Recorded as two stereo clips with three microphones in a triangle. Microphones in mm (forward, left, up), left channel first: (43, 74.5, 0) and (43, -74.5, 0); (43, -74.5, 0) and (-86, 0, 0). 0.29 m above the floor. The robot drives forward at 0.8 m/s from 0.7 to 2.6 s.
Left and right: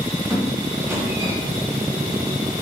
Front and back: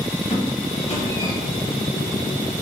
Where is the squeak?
20° right, 1.2 m; by 1.3 s 50° right, 0.9 m.